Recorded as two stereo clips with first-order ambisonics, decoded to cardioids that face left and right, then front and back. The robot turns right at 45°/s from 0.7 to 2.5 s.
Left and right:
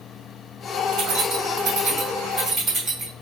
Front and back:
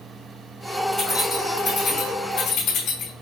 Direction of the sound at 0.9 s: 105° right.